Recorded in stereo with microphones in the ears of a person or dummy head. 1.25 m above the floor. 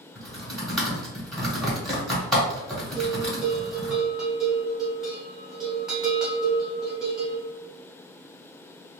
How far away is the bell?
About 0.9 m.